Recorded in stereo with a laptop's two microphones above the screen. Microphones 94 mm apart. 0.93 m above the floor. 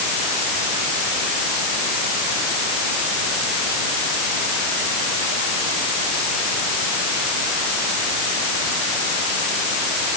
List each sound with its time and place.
Only background noise.